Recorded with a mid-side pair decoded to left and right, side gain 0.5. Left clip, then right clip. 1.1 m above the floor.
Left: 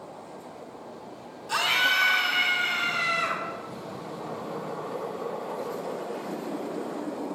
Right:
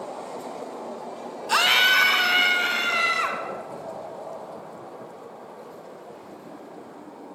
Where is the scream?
50° right, 0.9 m; by 3.4 s 70° right, 3.5 m.